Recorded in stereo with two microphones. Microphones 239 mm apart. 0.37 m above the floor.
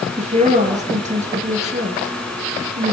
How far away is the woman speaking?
About 6.5 m.